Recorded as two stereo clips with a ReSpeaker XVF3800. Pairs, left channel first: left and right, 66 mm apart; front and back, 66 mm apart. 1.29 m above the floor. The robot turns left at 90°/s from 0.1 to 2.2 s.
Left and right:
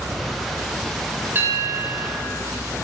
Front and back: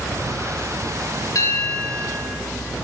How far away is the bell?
About 2.5 m.